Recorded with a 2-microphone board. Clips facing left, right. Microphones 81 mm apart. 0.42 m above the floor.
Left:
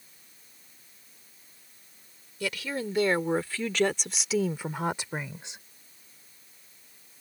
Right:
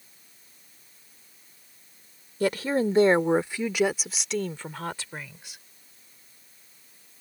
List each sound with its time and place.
2.4 s a woman speaking: 40° right (ahead or behind); by 5.6 s 30° left (ahead or behind)